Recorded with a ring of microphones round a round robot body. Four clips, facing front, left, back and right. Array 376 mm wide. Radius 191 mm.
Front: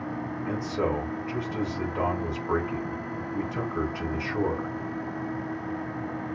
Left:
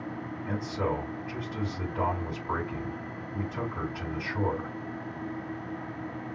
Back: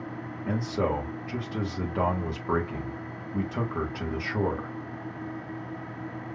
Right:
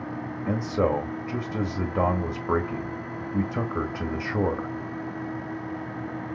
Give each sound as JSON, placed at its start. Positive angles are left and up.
{"t": 0.5, "sound": "a man speaking", "azimuth_deg": -105, "distance_m": 1.7}